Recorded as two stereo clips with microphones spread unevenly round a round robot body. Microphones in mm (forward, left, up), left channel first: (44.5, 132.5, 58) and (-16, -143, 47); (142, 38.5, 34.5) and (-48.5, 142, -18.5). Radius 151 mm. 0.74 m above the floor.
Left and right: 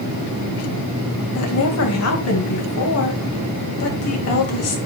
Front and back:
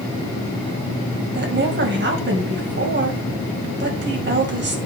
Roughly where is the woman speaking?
Behind left.